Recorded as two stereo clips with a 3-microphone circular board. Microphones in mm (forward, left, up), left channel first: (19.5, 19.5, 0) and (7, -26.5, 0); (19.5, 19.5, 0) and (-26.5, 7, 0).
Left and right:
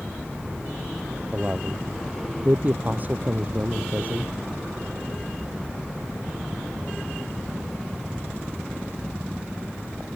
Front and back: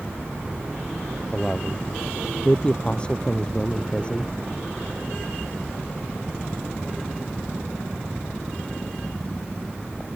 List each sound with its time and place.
1.3 s a man speaking: 50° right